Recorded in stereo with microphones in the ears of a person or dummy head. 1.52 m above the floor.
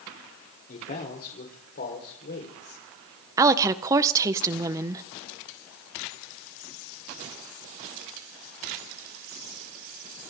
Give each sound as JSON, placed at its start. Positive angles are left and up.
{"t": 0.7, "sound": "a man speaking", "side_deg": 45, "distance_m": 4.0}
{"t": 3.4, "sound": "a woman speaking", "side_deg": -15, "distance_m": 1.2}